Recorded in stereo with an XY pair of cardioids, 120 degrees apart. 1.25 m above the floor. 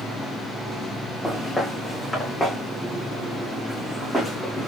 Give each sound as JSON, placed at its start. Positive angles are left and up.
{"t": 1.2, "sound": "footsteps", "azimuth_deg": 10, "distance_m": 4.0}